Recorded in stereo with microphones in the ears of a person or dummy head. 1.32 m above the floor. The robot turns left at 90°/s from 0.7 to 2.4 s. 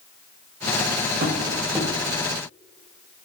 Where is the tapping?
45° right (ahead or behind), 6.5 m; by 1.9 s 15° left (ahead or behind), 6.5 m.